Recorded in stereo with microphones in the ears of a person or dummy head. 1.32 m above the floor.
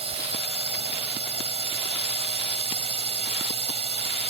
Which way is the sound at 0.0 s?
30° right (ahead or behind).